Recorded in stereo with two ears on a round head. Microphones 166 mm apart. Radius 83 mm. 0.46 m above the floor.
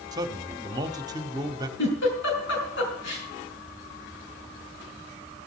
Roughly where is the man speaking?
Right.